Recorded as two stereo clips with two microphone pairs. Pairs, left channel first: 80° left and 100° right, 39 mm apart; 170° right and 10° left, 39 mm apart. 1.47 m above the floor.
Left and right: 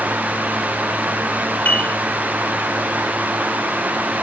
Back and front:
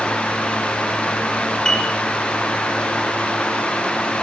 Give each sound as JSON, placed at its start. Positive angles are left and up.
{"t": 1.6, "sound": "a piano", "azimuth_deg": 110, "distance_m": 2.0}